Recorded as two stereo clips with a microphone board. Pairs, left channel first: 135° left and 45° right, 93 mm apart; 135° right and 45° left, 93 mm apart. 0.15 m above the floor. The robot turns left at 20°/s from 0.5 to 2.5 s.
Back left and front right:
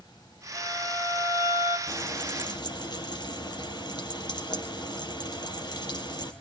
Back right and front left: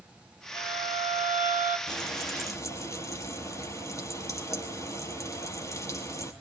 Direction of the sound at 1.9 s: 175° right.